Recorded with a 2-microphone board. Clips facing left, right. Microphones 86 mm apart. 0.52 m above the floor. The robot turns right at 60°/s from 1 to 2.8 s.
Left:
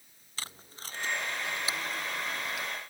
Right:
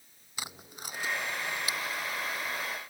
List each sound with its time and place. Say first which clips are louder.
0.4 s tape being pulled: right 2 dB; 15° right (ahead or behind); by 2.7 s 85° left